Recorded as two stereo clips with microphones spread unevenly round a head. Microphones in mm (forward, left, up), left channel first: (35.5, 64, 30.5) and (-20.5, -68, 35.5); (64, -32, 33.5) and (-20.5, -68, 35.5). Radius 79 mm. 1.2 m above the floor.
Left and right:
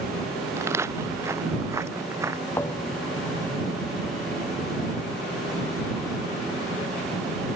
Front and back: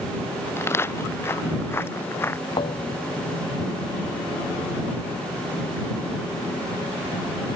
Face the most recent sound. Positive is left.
turn(degrees=-10)